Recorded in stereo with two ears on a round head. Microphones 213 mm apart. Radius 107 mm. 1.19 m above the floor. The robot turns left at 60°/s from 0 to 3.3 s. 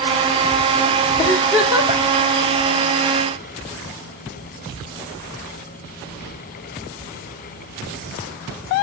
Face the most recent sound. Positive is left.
turn(degrees=-110)